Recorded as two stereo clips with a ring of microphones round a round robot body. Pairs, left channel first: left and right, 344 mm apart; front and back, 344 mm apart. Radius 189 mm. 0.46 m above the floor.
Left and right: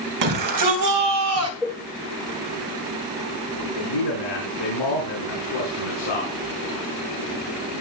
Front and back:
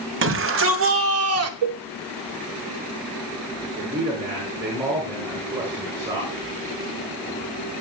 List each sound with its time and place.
0.2 s a shout: 125° right, 3 m; by 1.5 s 140° right, 2 m
1.6 s a cowbell: straight behind, 0.7 m
3.6 s a man speaking: 100° left, 5 m